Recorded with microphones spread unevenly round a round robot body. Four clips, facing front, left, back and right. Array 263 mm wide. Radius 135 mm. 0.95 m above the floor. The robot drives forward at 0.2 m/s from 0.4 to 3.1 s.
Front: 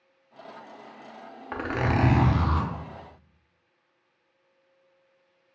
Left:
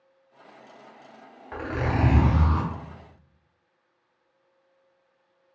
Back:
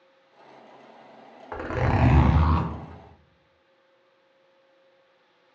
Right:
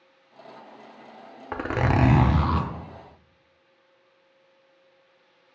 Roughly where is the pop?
No pop in this recording.